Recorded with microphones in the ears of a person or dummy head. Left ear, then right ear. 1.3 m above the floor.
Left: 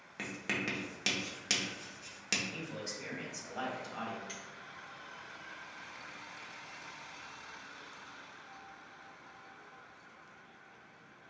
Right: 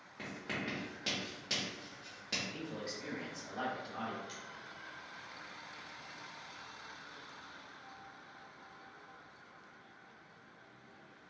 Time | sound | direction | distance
0.2 | writing | 60° left (ahead or behind) | 0.9 m
2.5 | a man speaking | 85° left | 1.4 m
4.3 | a finger snap | 10° left (ahead or behind) | 1.7 m